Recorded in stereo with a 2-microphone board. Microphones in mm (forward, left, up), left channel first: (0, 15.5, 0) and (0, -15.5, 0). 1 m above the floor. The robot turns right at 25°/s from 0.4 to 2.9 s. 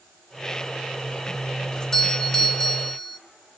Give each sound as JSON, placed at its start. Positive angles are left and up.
{"t": 1.7, "sound": "a doorbell", "side_deg": 20, "distance_m": 0.7}